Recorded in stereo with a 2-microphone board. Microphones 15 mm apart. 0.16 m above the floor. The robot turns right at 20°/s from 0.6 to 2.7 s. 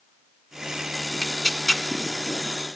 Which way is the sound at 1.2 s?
40° left (ahead or behind).